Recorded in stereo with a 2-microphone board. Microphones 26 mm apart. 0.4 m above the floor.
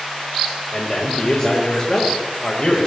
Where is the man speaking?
30° left (ahead or behind), 1.8 m; by 2.9 s 45° left (ahead or behind), 1.7 m.